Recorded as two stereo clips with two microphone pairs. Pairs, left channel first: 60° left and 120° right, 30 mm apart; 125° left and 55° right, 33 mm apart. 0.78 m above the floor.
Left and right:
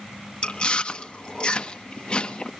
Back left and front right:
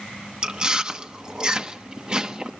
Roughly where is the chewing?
Ahead.